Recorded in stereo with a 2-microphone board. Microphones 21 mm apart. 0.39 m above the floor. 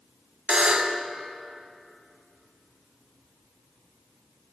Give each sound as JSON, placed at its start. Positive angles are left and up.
{"t": 0.5, "sound": "a buzzer", "side_deg": -55, "distance_m": 0.6}